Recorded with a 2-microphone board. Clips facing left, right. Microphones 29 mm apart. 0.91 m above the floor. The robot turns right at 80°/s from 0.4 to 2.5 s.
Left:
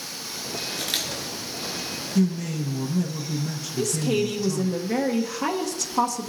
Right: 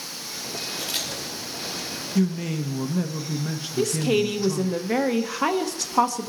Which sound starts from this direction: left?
A camera shutter, at 0.7 s.